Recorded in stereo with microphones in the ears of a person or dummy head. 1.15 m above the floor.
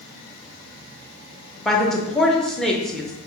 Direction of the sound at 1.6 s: 5° right (ahead or behind).